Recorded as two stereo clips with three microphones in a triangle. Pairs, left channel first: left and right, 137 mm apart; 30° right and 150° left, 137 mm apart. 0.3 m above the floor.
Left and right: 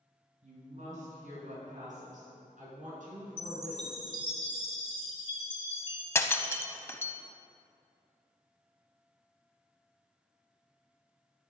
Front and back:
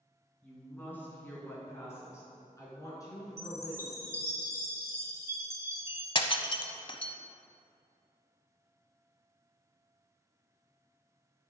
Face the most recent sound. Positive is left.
turn(degrees=20)